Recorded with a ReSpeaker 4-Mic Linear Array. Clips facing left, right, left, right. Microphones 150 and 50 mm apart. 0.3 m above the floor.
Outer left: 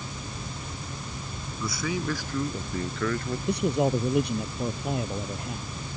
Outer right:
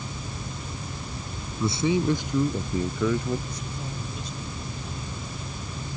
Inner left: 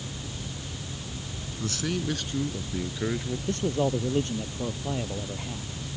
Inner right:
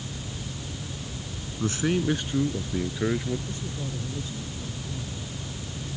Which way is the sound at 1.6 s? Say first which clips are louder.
Outer right 7 dB, inner right 5 dB; 30° right (ahead or behind).